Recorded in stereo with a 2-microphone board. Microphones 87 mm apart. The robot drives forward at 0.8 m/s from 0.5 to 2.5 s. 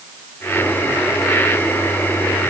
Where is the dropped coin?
I don't hear a dropped coin.